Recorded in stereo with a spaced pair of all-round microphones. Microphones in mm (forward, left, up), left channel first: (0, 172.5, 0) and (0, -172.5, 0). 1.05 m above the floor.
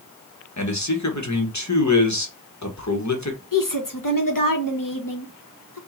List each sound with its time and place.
0.6 s a man speaking: 55° left (ahead or behind), 1.2 m
3.5 s a woman speaking: 65° left (ahead or behind), 1.2 m